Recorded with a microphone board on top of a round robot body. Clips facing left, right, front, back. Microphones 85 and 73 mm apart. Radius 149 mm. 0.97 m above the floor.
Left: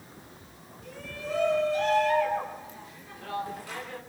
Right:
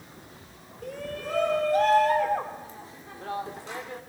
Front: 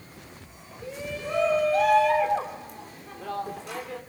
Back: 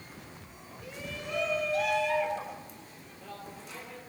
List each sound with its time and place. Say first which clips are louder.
0.8 s a shout: right 4 dB, front 7 dB; 60° right, 4 m; by 4.0 s 20° right, 3.5 m